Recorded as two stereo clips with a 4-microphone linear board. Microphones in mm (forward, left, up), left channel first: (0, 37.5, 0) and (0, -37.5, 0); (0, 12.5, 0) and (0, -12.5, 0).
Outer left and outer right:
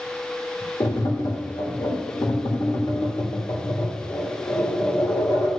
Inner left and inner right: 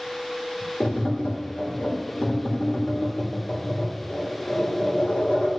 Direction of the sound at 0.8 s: 65° left (ahead or behind).